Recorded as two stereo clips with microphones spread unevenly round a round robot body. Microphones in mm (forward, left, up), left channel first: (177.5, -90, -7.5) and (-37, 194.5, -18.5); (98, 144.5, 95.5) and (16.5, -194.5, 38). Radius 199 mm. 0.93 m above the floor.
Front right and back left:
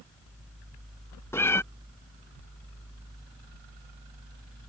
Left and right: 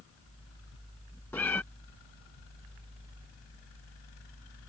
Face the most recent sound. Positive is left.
turn(degrees=20)